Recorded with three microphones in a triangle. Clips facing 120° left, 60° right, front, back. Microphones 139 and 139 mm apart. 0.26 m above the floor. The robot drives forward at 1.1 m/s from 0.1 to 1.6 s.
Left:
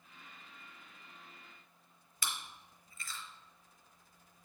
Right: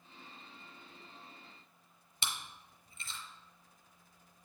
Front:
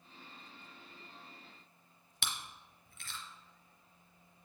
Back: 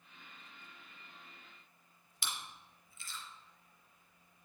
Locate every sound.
2.2 s chewing: 5° left, 1.1 m